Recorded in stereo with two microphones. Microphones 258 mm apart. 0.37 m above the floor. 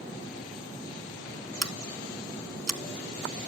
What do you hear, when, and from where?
1.6 s scissors: 80° right, 1.1 m